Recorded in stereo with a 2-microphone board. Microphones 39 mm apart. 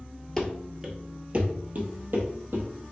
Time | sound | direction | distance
0.4 | running footsteps | 10° left (ahead or behind) | 0.7 m